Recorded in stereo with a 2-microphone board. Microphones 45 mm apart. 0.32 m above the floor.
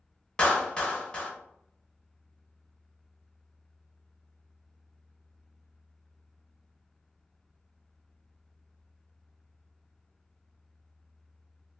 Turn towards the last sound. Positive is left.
turn(degrees=20)  # may be behind; listen again after turning